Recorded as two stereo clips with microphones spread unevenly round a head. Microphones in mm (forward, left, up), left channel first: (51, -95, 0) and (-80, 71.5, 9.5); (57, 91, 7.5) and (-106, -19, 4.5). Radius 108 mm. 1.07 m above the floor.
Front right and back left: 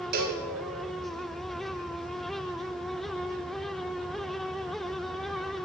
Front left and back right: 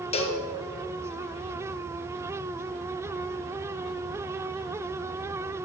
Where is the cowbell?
90° left, 0.8 m.